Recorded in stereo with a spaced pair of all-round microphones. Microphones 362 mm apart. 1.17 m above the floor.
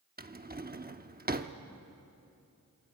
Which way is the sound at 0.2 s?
25° right (ahead or behind).